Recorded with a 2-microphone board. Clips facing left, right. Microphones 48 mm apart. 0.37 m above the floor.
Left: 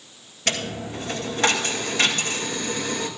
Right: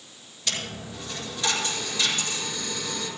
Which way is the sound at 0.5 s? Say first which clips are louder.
Left 6 dB; 50° left (ahead or behind).